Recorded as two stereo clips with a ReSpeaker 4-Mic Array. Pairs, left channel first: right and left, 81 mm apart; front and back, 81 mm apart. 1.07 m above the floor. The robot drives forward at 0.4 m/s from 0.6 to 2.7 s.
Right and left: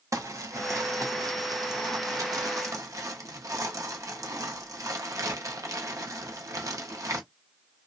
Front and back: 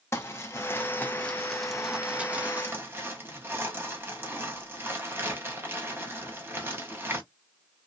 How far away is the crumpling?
About 0.8 m.